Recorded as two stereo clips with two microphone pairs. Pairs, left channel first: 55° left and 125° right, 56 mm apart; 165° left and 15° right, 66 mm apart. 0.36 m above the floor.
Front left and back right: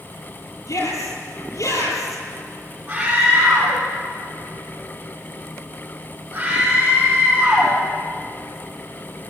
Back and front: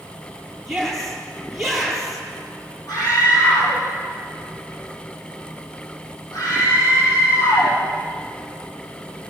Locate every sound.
0.7 s a shout: 70° left, 9.5 m
2.9 s a scream: 165° left, 9.5 m